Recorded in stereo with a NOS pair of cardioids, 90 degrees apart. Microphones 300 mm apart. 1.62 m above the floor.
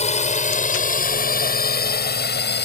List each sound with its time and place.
0.0 s a drone: 20° left; by 2.7 s 35° left